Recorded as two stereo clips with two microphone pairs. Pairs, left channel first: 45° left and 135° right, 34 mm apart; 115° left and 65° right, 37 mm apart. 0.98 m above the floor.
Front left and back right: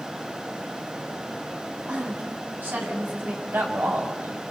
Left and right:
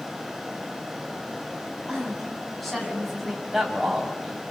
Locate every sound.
1.9 s a woman speaking: 155° right, 7 m
3.4 s a man speaking: 145° right, 5.5 m